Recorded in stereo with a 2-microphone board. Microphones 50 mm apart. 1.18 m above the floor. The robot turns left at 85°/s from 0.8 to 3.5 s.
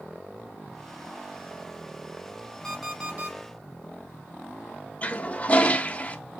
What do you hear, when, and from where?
2.6 s an alarm clock: 20° left, 3 m; by 3.4 s 45° right, 3 m
5.0 s a toilet flushing: 30° left (ahead or behind), 0.7 m